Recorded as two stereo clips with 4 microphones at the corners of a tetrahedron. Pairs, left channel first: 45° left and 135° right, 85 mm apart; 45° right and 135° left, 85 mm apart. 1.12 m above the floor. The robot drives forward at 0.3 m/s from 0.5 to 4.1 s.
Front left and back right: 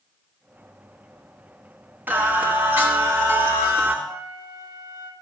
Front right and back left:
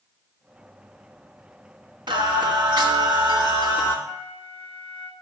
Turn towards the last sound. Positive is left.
turn(degrees=75)